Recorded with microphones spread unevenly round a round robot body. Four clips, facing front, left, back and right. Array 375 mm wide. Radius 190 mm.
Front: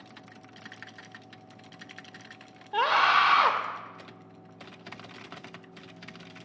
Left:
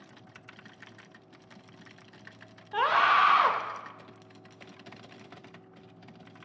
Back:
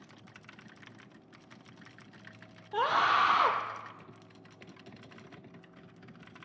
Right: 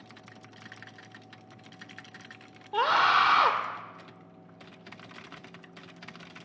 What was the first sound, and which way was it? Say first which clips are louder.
A scream: even, front 4 dB; 135° right.